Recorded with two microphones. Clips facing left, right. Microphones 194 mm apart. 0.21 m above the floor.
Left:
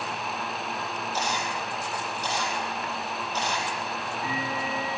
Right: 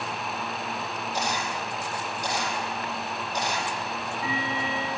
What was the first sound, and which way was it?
A camera shutter, 15° right (ahead or behind).